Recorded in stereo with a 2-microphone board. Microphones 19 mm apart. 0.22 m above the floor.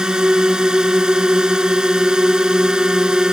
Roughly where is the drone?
Right.